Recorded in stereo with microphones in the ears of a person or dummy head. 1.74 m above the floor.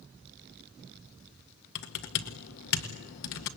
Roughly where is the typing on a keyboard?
Left.